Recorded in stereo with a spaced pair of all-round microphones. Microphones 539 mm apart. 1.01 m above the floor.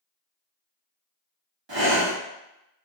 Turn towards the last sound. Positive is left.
turn(degrees=-40)  # may be behind; listen again after turning